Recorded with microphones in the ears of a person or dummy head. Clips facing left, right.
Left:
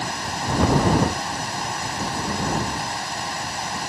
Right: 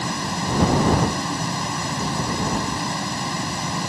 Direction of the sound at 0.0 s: 75° right (ahead or behind).